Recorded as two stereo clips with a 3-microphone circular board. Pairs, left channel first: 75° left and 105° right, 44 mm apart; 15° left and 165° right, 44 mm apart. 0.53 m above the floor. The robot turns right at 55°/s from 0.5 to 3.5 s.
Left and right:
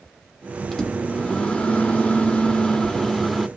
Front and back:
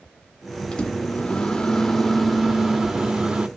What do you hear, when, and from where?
0.7 s a microwave: 10° left, 0.6 m; by 3.5 s 165° left, 0.6 m